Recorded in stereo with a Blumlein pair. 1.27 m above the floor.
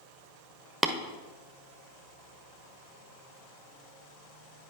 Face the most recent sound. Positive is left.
turn(degrees=-5)